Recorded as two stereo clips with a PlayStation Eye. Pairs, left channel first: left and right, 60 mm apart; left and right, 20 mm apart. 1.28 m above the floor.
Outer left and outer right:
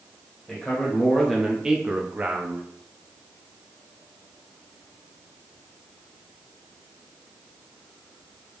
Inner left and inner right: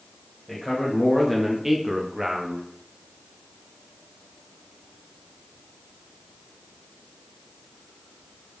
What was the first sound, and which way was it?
A man speaking, 10° left (ahead or behind).